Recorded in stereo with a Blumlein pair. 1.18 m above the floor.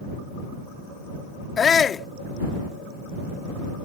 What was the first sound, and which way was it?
A shout, 20° left.